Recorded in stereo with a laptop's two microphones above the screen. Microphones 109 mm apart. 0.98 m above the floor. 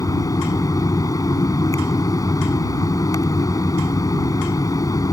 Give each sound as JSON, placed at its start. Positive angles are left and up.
{"t": 0.0, "sound": "a fan", "side_deg": 35}